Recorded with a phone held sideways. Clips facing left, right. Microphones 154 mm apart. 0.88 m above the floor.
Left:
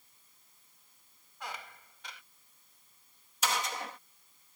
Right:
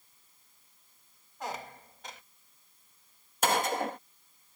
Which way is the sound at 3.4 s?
55° right (ahead or behind).